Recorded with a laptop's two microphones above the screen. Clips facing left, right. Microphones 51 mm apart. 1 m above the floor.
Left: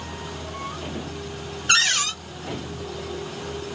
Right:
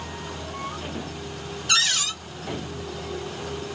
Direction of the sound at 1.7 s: 45° left (ahead or behind).